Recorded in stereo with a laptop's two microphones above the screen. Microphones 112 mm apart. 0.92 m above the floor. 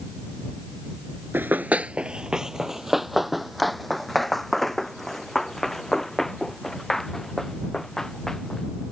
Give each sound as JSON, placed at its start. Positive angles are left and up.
{"t": 1.3, "sound": "running footsteps", "side_deg": -20}